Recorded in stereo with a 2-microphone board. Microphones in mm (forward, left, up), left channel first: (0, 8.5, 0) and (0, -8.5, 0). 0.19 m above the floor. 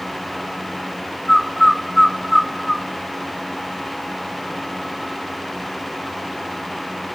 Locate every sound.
1.3 s a bird: 10° left (ahead or behind), 0.8 m